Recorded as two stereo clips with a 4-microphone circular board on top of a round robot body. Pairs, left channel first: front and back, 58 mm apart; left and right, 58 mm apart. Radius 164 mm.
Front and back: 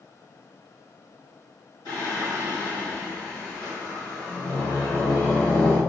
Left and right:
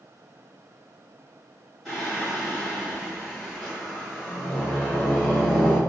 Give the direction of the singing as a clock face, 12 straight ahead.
12 o'clock.